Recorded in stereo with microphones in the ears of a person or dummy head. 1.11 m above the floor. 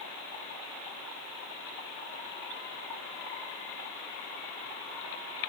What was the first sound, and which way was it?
Only background noise.